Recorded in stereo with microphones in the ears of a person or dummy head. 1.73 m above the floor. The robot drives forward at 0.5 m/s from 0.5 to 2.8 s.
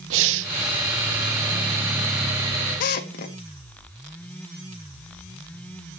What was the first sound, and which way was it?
Breathing, 70° right (ahead or behind).